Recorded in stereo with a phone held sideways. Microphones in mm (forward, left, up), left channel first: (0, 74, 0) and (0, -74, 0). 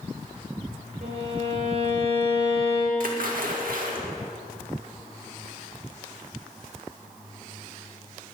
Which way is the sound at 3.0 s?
70° right (ahead or behind).